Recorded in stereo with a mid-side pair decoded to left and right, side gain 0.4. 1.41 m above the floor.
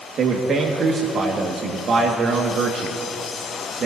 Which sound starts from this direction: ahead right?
A man speaking, at 0.2 s.